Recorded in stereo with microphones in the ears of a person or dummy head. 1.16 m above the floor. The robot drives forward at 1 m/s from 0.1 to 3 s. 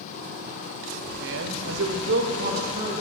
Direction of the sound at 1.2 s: 65° right (ahead or behind).